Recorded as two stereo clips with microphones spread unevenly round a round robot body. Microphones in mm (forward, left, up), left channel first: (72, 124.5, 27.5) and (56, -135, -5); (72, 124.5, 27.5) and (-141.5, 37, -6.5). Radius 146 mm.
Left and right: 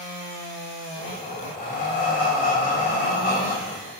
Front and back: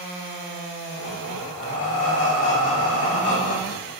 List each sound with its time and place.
1.0 s breathing: 30° left, 2.5 m